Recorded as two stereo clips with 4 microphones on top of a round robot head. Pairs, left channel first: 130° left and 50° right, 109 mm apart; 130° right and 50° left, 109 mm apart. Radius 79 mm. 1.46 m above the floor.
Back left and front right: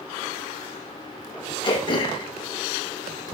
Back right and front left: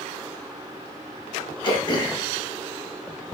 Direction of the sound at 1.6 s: Straight behind.